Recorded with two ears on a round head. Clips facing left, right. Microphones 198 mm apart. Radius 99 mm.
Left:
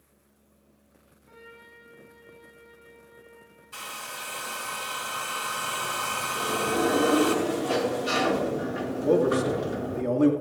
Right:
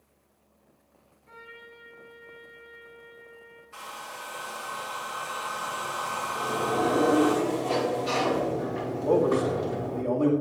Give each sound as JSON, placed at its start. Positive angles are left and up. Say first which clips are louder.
{"t": 1.3, "sound": "a trumpet", "louder": "right 1 dB", "side_deg": -25, "distance_m": 5.0}
{"t": 3.7, "sound": "a hair dryer", "louder": "left 1 dB", "side_deg": 50, "distance_m": 3.0}
{"t": 6.3, "sound": "a sliding door", "louder": "left 1 dB", "side_deg": 15, "distance_m": 1.9}
{"t": 9.0, "sound": "a man speaking", "louder": "left 1 dB", "side_deg": 25, "distance_m": 1.8}